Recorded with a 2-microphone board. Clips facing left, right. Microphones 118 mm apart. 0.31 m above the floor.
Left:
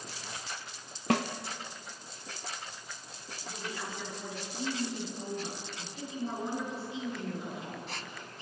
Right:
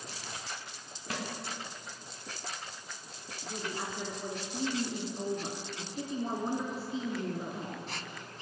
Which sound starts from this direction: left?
A snare drum, at 1.1 s.